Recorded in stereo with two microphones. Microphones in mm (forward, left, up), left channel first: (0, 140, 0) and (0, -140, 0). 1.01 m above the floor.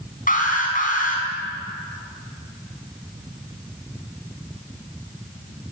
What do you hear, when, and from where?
0.3 s an alarm: 30° left (ahead or behind), 5.5 m